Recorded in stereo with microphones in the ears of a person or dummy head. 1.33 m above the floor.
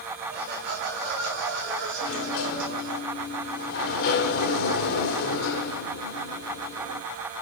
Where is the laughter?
50° right (ahead or behind), 1.9 m; by 3.0 s 70° right (ahead or behind), 3.5 m.